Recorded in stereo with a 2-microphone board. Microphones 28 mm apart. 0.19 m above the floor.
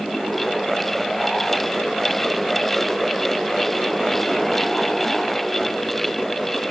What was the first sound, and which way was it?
Only background noise.